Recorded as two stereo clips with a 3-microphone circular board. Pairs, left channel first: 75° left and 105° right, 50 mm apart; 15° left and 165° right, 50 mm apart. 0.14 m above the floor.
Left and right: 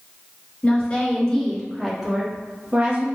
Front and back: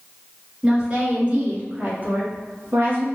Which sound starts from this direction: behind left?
A woman speaking, at 0.6 s.